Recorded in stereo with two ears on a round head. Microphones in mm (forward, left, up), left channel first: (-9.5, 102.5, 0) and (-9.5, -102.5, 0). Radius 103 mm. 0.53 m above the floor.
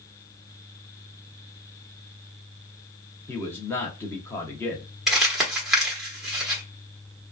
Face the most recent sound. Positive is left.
turn(degrees=0)  # may be behind; listen again after turning